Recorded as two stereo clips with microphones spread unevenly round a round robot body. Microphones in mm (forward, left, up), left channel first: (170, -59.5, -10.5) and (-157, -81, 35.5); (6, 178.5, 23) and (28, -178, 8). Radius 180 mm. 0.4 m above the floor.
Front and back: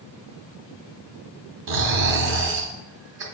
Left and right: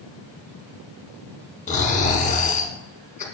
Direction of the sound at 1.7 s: 150° left.